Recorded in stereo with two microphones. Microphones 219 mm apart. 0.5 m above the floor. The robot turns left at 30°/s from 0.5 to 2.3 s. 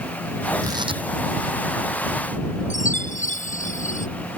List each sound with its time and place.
0.6 s tearing paper: 15° right (ahead or behind); by 1.0 s 25° right (ahead or behind)
2.7 s a chime: 35° left (ahead or behind)